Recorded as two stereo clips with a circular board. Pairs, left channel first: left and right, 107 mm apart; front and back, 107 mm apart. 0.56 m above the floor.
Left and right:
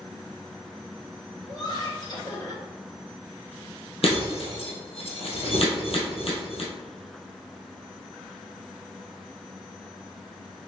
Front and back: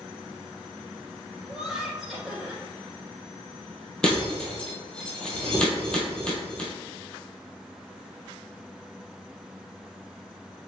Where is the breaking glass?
80° left, 1.2 m.